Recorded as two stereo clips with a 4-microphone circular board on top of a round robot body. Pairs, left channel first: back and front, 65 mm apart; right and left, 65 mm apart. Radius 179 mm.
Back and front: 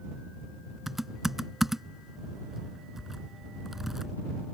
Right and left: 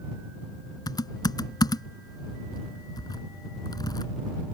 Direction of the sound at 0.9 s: 85° right.